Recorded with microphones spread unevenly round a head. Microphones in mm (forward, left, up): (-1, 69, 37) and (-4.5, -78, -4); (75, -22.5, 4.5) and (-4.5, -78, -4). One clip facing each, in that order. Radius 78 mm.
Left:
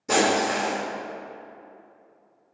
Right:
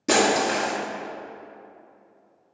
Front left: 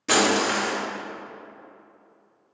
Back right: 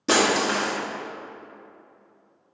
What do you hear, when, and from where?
0.1 s breaking glass: 80° right, 1.6 m